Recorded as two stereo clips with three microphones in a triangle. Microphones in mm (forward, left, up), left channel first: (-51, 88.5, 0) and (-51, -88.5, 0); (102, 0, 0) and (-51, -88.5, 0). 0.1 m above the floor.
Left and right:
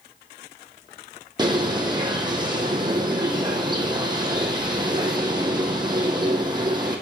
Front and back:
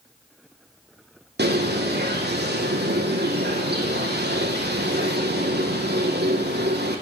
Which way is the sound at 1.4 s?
155° right.